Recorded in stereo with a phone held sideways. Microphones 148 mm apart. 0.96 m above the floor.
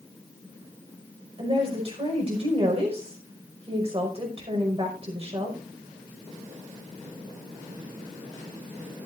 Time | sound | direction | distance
1.4 | a woman speaking | 40° right (ahead or behind) | 5 m